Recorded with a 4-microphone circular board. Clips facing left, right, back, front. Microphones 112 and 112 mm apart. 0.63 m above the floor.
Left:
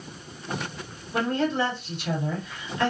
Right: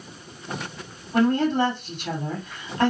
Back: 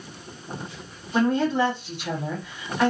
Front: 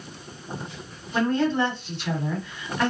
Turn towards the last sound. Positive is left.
turn(degrees=-100)